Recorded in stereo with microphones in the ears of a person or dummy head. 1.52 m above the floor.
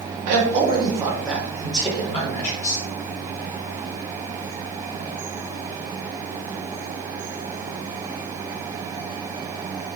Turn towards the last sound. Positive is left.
turn(degrees=40)  # may be behind; listen again after turning